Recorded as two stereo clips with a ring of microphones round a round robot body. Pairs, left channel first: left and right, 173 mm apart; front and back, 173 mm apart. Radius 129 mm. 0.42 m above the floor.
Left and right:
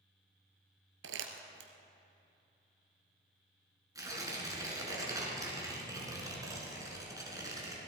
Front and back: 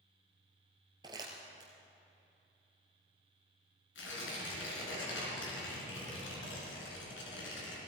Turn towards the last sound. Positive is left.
turn(degrees=-20)